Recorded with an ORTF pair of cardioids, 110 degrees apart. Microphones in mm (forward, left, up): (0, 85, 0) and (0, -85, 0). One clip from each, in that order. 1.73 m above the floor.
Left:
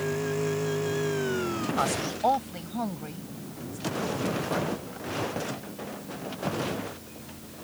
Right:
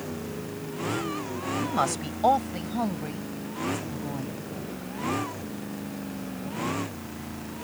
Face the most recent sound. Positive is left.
turn(degrees=-20)